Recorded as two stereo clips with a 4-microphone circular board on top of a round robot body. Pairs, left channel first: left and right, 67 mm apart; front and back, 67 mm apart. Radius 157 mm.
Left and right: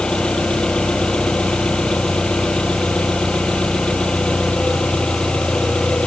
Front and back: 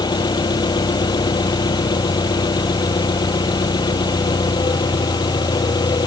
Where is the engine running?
10° left.